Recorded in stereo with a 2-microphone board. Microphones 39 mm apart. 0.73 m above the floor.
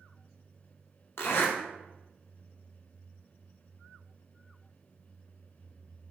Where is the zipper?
70° left (ahead or behind), 0.8 m.